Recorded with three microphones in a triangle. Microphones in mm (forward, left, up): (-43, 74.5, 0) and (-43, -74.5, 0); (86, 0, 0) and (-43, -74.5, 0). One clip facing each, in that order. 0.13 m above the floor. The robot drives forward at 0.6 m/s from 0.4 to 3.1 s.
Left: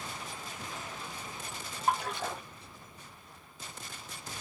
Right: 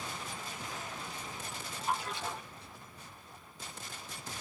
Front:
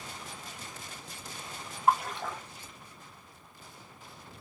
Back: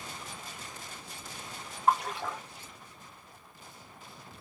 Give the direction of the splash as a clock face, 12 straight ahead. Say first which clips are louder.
Left 4 dB, even; 8 o'clock.